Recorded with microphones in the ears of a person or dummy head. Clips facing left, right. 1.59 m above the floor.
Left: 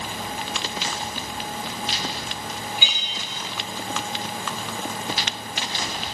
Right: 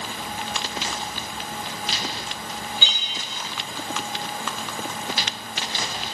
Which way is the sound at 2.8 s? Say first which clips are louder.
Left 1 dB; 10° left (ahead or behind).